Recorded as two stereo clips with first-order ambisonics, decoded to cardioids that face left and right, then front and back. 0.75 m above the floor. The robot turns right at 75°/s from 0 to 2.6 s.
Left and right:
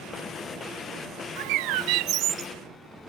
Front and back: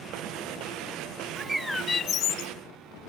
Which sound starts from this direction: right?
A bird, at 1.4 s.